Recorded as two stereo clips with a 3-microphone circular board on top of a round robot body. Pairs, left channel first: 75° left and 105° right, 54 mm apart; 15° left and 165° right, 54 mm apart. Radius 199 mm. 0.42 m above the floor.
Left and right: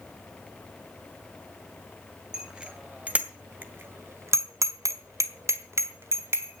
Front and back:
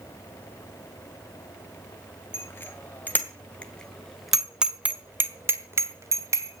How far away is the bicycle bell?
About 3 m.